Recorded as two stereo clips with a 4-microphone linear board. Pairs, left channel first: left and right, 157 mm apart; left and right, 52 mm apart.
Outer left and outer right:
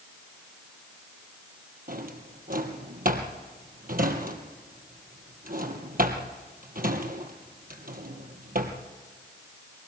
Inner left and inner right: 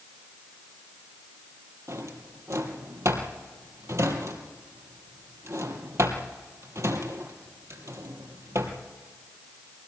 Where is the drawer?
65° right (ahead or behind), 3 m.